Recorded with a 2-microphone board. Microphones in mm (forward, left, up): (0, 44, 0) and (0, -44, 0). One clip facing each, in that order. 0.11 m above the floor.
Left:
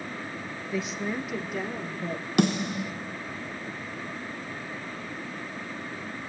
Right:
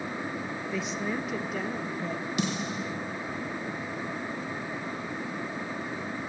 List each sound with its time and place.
0.7 s a woman speaking: centre (ahead or behind), 1.8 m; by 2.3 s 5° left (ahead or behind), 3 m
2.4 s a snare drum: 65° left (ahead or behind), 2.5 m